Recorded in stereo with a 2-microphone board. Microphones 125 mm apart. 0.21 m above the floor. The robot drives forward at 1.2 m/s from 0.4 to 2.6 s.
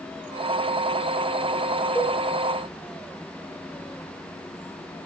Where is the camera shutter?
No camera shutter in this recording.